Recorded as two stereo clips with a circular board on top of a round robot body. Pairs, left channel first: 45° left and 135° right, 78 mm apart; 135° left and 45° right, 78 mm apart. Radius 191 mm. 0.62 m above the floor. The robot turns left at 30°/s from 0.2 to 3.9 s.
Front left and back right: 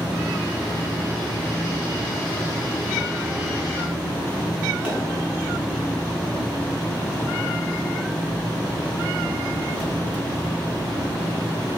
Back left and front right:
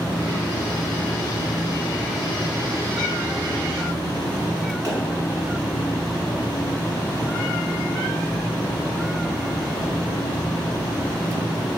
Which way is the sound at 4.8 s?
60° right.